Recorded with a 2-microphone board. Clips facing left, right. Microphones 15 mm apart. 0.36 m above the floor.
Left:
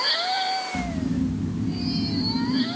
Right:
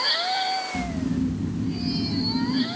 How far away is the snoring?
About 3.5 m.